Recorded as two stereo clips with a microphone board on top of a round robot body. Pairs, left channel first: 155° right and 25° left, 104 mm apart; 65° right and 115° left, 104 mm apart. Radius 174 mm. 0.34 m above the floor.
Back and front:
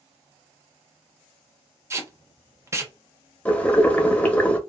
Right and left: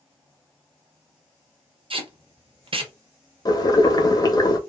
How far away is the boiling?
About 0.9 m.